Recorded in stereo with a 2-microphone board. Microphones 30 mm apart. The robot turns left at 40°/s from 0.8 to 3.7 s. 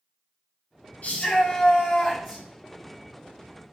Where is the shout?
70° left, 4 m; by 2.4 s 10° left, 4 m.